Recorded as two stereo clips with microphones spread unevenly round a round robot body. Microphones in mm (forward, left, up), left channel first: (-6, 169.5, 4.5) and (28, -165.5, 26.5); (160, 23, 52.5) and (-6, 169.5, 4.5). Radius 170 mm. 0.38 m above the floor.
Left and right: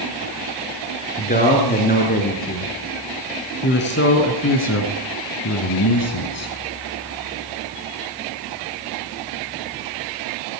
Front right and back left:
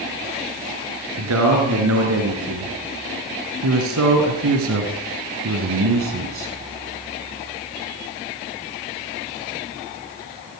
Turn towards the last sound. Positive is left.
turn(degrees=140)